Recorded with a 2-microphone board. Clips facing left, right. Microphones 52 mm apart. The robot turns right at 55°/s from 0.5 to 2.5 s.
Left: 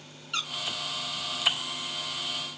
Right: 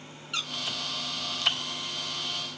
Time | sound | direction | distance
0.3 | a squeak | centre (ahead or behind) | 1.0 m